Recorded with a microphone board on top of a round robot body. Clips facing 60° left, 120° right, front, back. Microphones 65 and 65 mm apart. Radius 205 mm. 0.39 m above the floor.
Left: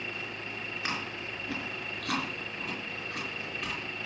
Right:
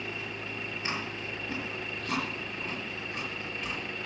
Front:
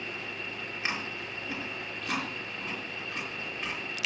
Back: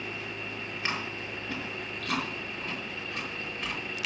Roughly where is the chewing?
Left.